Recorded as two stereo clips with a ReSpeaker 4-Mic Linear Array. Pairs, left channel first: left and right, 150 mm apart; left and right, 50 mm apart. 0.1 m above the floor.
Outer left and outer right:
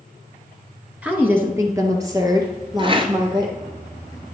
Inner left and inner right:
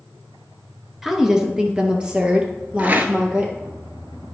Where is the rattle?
35° right (ahead or behind), 0.9 m.